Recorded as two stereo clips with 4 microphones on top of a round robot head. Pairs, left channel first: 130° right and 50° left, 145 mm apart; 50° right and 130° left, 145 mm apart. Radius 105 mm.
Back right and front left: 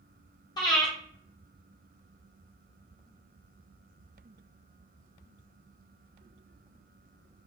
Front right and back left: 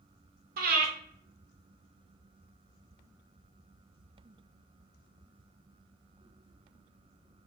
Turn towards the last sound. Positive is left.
turn(degrees=165)